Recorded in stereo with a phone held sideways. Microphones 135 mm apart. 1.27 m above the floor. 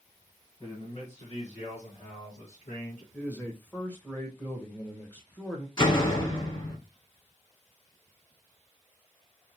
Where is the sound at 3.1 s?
15° left (ahead or behind), 1.3 m.